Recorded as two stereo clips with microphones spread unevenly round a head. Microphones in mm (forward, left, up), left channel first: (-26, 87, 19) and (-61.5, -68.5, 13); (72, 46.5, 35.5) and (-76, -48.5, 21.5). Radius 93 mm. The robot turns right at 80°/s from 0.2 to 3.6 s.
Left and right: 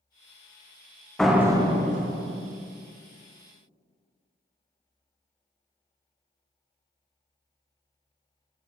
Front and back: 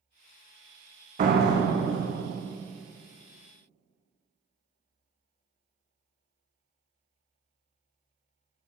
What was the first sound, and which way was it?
A door slam, 160° left.